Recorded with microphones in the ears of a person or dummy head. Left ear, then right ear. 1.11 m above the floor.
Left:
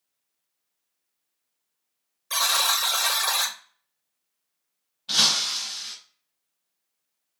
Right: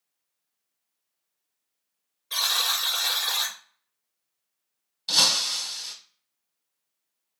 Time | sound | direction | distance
2.3 | a buzzer | 45° left (ahead or behind) | 0.9 m
5.1 | breaking glass | 50° right (ahead or behind) | 1.4 m